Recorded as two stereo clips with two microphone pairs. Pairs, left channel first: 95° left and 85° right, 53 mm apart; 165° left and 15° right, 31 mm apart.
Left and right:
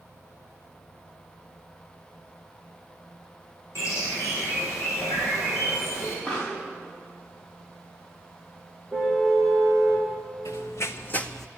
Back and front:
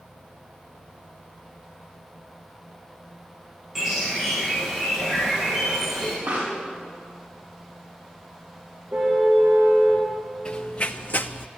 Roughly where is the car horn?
Ahead.